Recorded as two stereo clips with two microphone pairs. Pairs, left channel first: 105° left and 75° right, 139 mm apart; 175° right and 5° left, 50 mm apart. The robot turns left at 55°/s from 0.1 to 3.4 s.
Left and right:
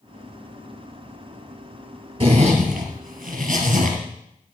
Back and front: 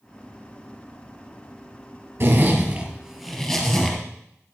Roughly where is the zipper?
Ahead right.